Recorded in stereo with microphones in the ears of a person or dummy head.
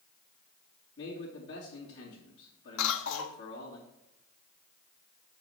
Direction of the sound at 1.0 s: 75° left (ahead or behind).